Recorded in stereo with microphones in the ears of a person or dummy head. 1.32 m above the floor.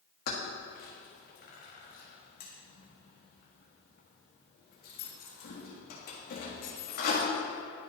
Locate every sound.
0.3 s keys jangling: 45° left (ahead or behind), 1.4 m